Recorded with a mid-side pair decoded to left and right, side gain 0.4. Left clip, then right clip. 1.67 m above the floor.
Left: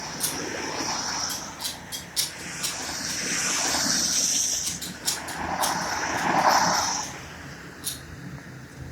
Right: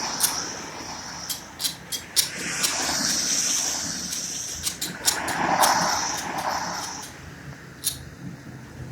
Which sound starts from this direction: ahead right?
Scissors, at 0.2 s.